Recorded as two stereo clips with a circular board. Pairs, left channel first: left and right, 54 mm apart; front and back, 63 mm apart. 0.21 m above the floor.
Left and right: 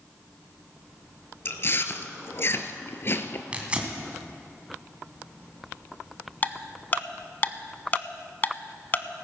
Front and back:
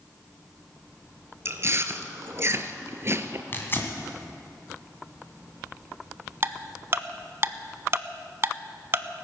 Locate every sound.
1.4 s chewing: 135° left, 0.7 m
3.5 s tearing paper: 30° right, 2 m
6.4 s ticking: 140° left, 0.5 m